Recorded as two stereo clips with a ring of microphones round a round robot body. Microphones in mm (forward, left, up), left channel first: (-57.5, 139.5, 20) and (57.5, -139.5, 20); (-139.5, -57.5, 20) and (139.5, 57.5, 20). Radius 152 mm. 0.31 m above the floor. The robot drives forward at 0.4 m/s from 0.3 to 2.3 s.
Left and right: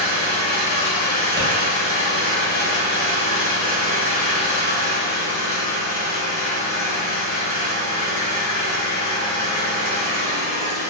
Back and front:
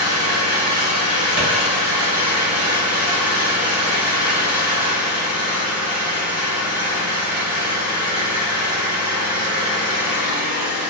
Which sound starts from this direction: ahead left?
An engine running, at 0.0 s.